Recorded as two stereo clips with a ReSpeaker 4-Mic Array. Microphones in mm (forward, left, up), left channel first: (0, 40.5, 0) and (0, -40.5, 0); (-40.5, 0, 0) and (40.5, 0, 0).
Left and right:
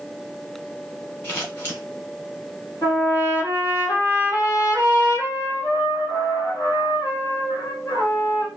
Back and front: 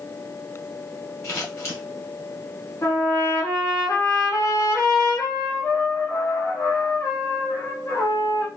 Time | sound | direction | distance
1.2 | scissors | 145° left | 2 m
2.8 | a trumpet | 135° left | 2.5 m